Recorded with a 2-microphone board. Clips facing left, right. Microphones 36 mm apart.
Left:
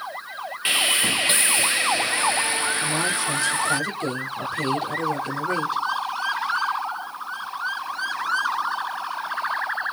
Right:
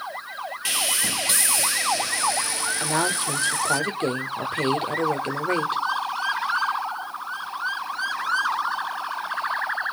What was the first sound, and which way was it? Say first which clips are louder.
Sawing: left 6 dB; 35° left (ahead or behind).